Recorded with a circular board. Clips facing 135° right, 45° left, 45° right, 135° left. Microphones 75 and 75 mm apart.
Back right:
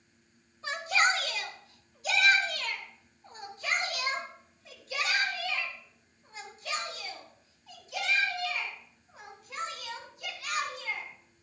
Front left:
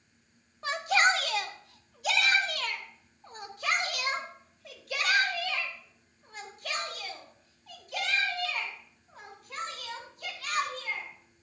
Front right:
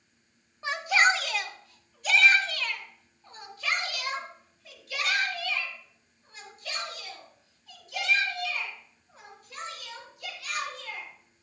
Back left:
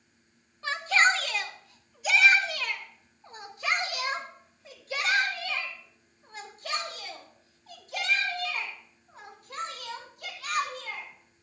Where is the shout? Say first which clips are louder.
Front left 2 dB, even; 25° left, 1.9 m; by 11.1 s 90° left, 8.5 m.